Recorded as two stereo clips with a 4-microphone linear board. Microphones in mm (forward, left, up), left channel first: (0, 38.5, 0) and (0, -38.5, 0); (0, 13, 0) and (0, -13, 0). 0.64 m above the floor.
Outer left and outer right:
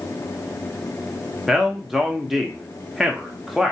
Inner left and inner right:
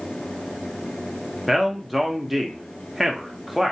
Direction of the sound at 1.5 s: 5° right (ahead or behind).